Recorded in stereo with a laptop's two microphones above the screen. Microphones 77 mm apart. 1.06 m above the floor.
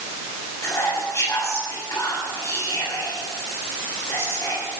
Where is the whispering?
40° left (ahead or behind), 7 m.